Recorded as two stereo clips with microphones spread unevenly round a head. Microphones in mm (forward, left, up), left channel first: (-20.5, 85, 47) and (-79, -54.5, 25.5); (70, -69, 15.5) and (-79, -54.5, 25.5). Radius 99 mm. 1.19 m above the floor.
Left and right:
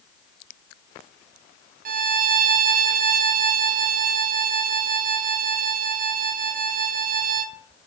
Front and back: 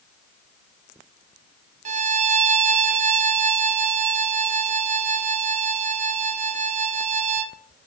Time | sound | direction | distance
1.9 | a violin | 145° right | 0.5 m